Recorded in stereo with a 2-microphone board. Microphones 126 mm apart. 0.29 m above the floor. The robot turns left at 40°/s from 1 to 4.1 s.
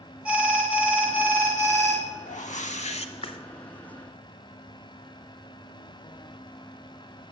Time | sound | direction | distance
0.2 | an alarm | 10° right (ahead or behind) | 1.5 m
2.3 | a whoosh | 90° left | 0.6 m